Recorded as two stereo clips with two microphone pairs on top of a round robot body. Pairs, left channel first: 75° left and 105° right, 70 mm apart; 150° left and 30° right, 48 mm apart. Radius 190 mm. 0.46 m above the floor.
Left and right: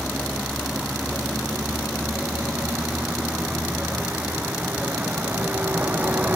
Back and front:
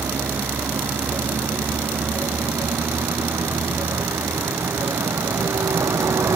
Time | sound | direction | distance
0.0 | a vehicle | 20° right | ?